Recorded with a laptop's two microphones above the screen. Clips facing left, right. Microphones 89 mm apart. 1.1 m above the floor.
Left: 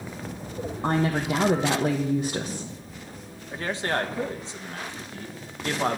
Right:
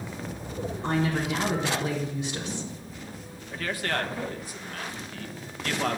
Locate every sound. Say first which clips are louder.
0.8 s a woman speaking: left 3 dB; 45° left (ahead or behind), 1.1 m
3.5 s a man speaking: left 3 dB; 25° left (ahead or behind), 1.0 m